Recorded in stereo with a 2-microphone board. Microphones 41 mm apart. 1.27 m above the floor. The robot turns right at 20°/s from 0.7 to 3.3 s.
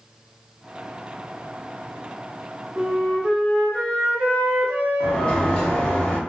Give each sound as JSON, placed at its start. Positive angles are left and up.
{"t": 2.8, "sound": "a flute", "side_deg": -50, "distance_m": 1.6}
{"t": 5.0, "sound": "a sliding door", "side_deg": 20, "distance_m": 1.0}